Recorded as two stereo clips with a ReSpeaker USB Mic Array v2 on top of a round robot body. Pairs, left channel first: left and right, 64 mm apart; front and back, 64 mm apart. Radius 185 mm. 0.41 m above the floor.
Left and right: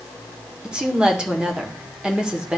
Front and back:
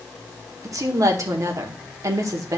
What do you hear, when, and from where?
0.6 s a woman speaking: 165° right, 1.7 m